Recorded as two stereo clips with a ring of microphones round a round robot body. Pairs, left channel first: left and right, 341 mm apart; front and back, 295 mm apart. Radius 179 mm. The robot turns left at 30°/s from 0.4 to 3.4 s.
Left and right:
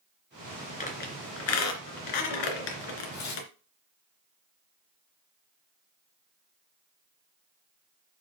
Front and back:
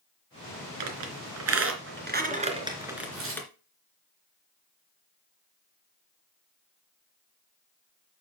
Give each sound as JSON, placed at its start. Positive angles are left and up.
{"t": 0.8, "sound": "a squeak", "azimuth_deg": 160, "distance_m": 2.5}
{"t": 3.1, "sound": "tearing paper", "azimuth_deg": 135, "distance_m": 4.5}